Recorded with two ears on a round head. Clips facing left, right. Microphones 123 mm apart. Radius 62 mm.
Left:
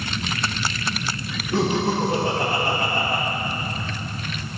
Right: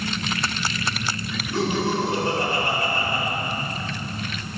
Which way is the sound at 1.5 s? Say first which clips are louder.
Left 2 dB; 60° left (ahead or behind).